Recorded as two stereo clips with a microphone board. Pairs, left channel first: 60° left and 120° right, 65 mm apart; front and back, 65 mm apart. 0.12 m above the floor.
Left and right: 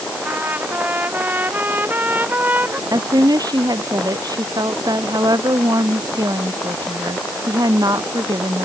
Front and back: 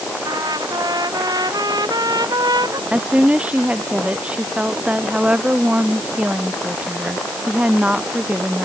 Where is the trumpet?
Straight behind.